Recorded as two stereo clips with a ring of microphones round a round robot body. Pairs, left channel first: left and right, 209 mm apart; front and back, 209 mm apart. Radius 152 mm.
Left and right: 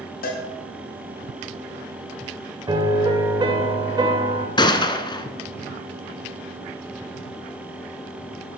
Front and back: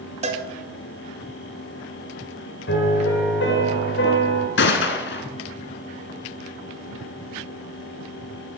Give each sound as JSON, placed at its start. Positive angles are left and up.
{"t": 0.2, "sound": "a cowbell", "azimuth_deg": 130, "distance_m": 1.8}
{"t": 2.7, "sound": "a piano", "azimuth_deg": -25, "distance_m": 2.5}
{"t": 4.6, "sound": "a gunshot", "azimuth_deg": 25, "distance_m": 1.2}